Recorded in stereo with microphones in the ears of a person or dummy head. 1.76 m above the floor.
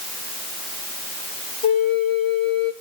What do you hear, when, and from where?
1.6 s a flute: 35° left (ahead or behind), 1.3 m